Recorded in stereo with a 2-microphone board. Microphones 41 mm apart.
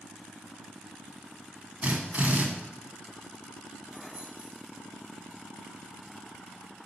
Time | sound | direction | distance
1.8 | a drill | 40° right (ahead or behind) | 1.5 m
3.9 | keys jangling | 30° right (ahead or behind) | 2.5 m